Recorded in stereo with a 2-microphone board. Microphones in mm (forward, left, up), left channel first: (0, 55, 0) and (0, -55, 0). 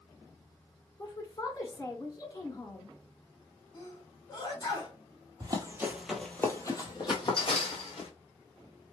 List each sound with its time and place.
1.0 s a woman speaking: 40° left (ahead or behind), 1.6 m
3.7 s a sneeze: 45° left (ahead or behind), 1.8 m
5.4 s running footsteps: 40° right (ahead or behind), 0.8 m; by 8.1 s 60° left (ahead or behind), 1.6 m